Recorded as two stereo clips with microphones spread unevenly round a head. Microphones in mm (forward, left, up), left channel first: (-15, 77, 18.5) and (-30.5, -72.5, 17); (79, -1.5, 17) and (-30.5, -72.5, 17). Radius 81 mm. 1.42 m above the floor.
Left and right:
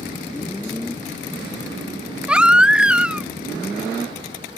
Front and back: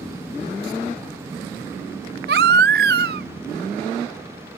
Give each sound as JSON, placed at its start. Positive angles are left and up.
{"t": 2.3, "sound": "a baby crying", "azimuth_deg": 180, "distance_m": 0.6}